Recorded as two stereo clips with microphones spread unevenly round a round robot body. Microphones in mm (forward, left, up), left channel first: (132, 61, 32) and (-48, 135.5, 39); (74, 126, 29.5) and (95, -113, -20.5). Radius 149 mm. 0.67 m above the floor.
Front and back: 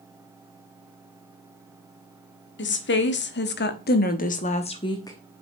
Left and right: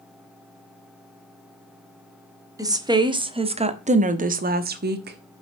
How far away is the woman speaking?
About 1.5 m.